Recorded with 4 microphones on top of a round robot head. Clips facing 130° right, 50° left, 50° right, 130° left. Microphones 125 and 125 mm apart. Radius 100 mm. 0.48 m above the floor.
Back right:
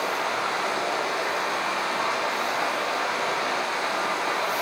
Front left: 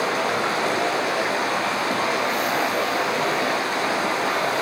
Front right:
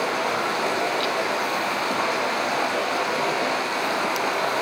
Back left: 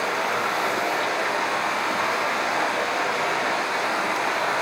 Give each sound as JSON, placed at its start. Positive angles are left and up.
{"t": 0.0, "sound": "running water", "azimuth_deg": 15, "distance_m": 6.5}